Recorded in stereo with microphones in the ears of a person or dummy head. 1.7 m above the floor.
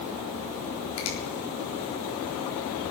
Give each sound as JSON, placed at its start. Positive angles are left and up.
{"t": 1.0, "sound": "a finger snap", "side_deg": 70, "distance_m": 4.0}